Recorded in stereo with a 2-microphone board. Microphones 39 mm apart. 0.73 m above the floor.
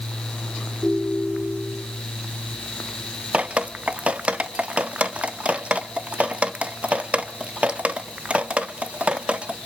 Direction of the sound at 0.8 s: 5° right (ahead or behind).